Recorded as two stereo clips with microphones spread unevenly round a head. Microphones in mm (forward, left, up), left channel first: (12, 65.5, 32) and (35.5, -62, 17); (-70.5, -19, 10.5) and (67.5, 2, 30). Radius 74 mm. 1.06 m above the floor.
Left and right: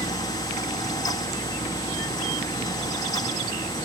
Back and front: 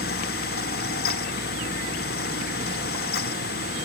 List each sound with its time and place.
0.0 s a fan: 165° left, 1.0 m